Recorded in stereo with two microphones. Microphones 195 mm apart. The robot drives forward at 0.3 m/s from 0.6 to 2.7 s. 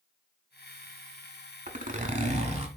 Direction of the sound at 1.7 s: 45° right (ahead or behind).